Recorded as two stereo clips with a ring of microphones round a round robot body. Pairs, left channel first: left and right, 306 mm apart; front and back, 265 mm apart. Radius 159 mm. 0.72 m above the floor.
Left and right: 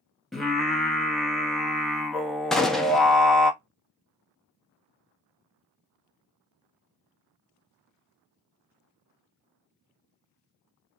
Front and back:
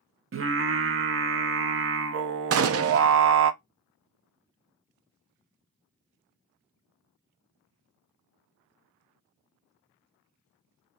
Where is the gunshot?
Straight behind, 0.6 m.